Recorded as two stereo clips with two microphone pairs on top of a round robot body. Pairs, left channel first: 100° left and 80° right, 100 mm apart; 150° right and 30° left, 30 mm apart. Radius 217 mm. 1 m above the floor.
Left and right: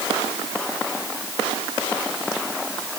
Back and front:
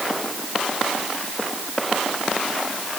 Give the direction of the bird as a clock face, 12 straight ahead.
No bird in this recording.